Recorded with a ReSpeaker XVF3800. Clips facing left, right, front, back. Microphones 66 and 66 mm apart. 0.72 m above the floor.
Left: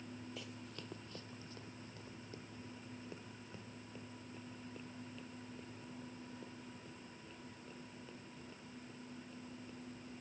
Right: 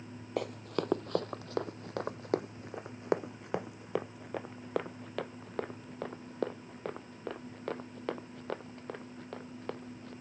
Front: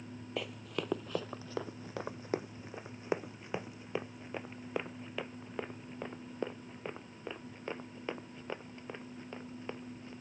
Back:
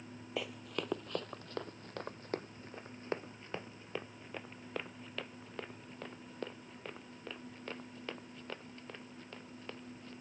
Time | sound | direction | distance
0.4 | running footsteps | 95° right | ?